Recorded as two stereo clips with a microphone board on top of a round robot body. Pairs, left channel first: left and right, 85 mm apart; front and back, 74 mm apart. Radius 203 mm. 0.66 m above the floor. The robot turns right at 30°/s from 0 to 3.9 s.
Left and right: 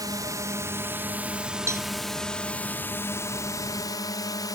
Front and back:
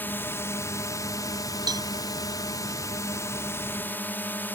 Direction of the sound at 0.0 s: 60° right.